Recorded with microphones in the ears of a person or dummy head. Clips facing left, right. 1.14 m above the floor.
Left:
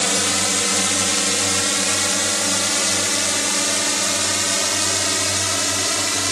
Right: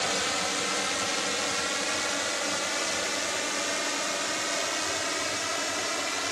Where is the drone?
60° left (ahead or behind); by 6.3 s 70° left (ahead or behind).